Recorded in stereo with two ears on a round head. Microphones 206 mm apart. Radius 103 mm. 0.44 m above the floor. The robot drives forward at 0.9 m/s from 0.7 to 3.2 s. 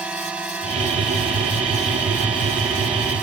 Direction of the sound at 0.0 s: 5° right (ahead or behind).